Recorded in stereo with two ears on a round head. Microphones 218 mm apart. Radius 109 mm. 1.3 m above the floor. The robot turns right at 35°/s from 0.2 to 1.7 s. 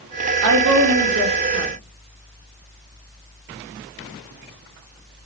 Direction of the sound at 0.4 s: 90° right.